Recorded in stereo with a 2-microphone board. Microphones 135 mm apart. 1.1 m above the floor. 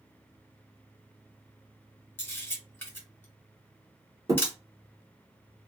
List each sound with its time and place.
2.2 s a camera shutter: 15° left (ahead or behind), 2 m
4.3 s a thud: 25° right (ahead or behind), 1.8 m